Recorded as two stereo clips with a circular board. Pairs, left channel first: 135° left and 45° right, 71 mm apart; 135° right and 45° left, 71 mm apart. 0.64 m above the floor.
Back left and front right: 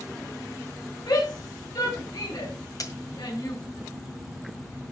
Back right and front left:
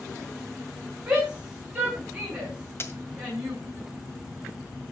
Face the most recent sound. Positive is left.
turn(degrees=170)